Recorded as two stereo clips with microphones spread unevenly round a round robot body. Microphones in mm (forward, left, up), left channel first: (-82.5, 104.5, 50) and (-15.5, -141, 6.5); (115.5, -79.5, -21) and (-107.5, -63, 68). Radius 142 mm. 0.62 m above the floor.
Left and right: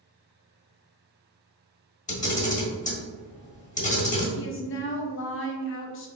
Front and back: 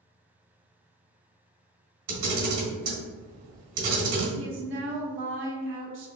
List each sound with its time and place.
2.1 s a camera shutter: 170° left, 1.6 m
4.3 s a woman speaking: 130° left, 0.8 m